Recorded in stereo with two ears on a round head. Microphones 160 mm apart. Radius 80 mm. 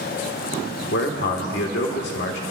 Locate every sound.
0.9 s a man speaking: 70° left (ahead or behind), 1.6 m